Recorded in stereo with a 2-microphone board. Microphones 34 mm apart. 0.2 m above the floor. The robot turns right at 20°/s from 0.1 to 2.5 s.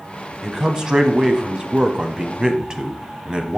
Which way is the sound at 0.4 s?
20° right (ahead or behind).